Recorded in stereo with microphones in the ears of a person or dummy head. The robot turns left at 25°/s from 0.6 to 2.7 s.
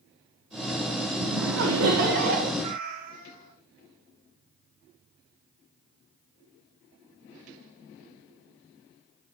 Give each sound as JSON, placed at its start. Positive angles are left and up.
{"t": 1.2, "sound": "laughter", "azimuth_deg": -90, "distance_m": 2.5}
{"t": 2.6, "sound": "a cat meowing", "side_deg": -40, "distance_m": 2.5}